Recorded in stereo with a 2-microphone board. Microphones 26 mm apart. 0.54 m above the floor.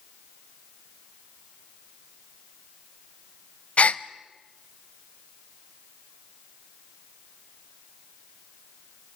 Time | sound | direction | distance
3.8 | a gasp | 55° left (ahead or behind) | 0.8 m